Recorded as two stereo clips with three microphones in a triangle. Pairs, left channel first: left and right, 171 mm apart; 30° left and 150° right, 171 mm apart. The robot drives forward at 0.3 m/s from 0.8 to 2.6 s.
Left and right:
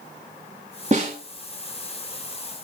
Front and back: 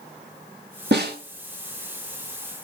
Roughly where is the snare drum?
Behind right.